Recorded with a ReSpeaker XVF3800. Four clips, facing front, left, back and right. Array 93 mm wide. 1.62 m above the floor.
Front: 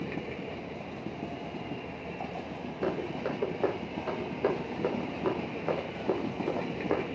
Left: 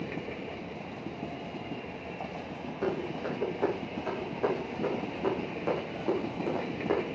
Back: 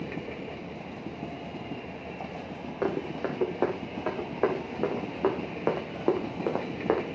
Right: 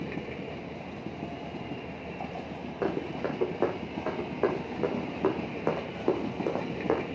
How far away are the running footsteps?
About 6.5 m.